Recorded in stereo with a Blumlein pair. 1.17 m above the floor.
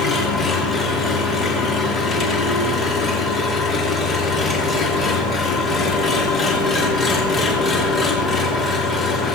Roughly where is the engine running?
Ahead.